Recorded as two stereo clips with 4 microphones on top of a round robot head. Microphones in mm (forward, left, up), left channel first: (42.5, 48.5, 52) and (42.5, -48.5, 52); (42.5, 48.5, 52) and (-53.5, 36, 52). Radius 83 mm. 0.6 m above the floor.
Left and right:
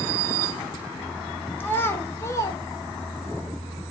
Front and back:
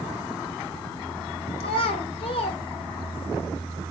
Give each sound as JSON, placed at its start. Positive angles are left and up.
{"t": 1.6, "sound": "a child speaking", "azimuth_deg": 20, "distance_m": 1.8}